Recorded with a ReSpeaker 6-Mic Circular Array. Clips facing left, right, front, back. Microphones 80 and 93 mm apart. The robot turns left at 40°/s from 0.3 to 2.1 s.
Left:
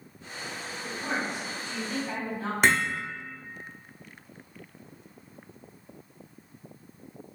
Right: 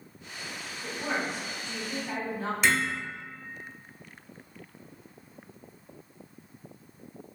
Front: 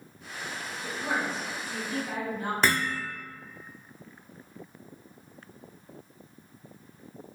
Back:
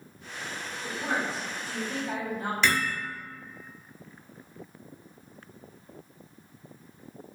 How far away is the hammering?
About 0.5 m.